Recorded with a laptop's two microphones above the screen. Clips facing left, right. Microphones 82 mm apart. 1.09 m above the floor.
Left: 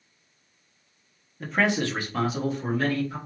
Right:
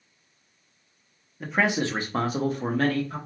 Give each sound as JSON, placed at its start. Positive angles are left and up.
{"t": 1.4, "sound": "a man speaking", "side_deg": 0, "distance_m": 0.8}